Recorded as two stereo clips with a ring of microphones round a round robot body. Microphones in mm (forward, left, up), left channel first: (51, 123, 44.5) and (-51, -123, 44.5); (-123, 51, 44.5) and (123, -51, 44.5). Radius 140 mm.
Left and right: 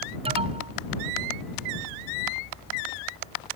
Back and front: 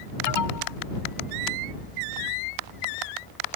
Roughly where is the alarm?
Behind.